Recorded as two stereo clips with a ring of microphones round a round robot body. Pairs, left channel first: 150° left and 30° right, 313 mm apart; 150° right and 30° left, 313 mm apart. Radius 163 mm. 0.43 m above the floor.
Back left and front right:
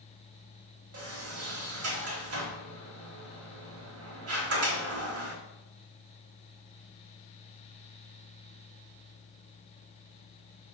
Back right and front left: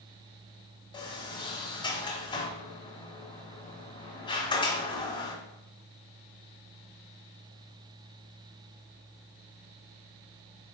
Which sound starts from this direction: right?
A sliding door, at 0.9 s.